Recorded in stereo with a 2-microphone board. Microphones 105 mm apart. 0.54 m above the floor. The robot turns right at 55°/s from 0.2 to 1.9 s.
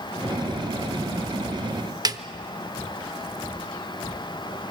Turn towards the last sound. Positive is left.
turn(degrees=-40)  # may be behind; listen again after turning